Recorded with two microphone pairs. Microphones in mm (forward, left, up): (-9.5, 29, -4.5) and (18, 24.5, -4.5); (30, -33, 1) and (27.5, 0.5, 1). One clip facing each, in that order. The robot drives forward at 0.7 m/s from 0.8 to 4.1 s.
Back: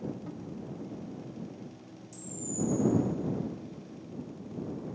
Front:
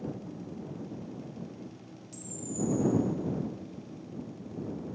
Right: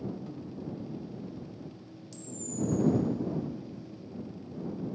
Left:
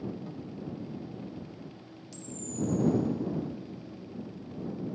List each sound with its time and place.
0.3 s a cupboard door: 175° left, 0.8 m
2.1 s a camera shutter: 10° left, 1.0 m; by 2.8 s 20° left, 0.6 m